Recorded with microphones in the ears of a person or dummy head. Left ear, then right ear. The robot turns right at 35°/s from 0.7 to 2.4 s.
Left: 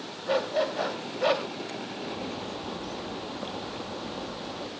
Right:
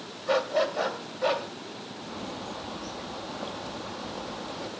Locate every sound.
0.3 s a dog barking: 15° right (ahead or behind), 2 m; by 1.5 s 10° left (ahead or behind), 2 m
2.0 s a bird: 15° left (ahead or behind), 1.3 m; by 4.7 s centre (ahead or behind), 1.3 m